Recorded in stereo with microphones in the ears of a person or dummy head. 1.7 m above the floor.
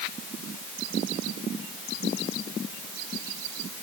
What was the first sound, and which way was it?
Only background noise.